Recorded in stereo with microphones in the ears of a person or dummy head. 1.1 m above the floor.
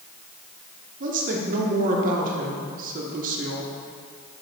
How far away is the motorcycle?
I don't hear a motorcycle.